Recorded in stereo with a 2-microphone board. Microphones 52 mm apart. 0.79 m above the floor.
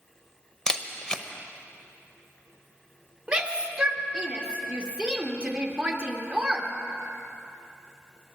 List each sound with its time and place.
0.7 s a camera shutter: 15° left (ahead or behind), 0.8 m
3.3 s a shout: 20° right (ahead or behind), 1.6 m